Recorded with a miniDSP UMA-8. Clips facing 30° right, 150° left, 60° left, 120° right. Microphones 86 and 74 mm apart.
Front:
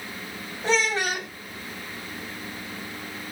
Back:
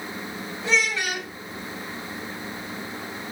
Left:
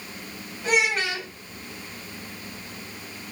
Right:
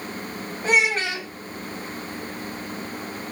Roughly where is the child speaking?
Right.